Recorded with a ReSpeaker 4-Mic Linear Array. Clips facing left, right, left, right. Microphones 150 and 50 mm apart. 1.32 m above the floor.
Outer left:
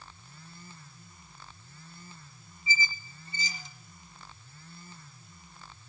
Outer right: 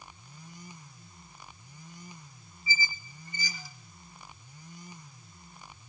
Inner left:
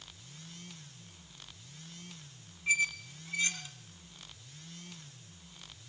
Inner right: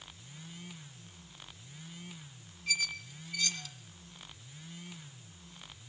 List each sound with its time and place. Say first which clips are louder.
2.7 s a squeak: outer left 1 dB, inner left 5 dB; 25° left (ahead or behind), 1.9 m